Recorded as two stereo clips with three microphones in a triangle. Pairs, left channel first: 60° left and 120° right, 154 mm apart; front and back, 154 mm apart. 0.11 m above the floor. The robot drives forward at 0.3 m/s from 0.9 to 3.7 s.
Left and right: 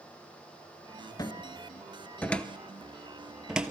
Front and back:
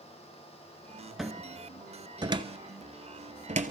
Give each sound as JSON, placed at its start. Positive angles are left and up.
{"t": 1.2, "sound": "a cupboard door", "azimuth_deg": 90, "distance_m": 0.6}